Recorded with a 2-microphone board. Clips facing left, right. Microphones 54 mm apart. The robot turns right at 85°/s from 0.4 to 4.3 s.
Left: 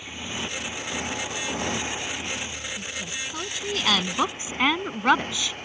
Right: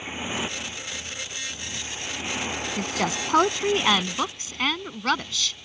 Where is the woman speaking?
115° right; by 5.6 s 20° left.